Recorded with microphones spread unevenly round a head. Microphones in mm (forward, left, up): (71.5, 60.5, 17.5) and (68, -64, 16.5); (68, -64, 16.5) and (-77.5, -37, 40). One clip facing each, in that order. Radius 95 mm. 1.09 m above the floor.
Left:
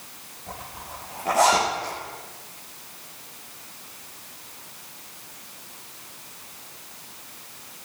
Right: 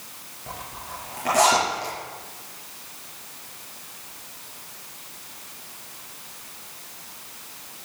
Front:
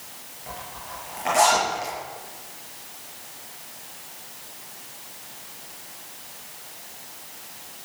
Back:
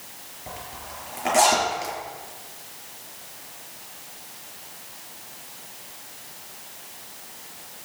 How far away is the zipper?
About 6 m.